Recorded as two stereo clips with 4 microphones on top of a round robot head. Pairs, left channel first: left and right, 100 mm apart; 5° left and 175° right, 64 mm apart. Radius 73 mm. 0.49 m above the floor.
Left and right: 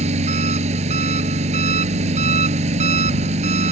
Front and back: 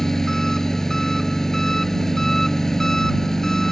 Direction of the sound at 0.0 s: 85° right.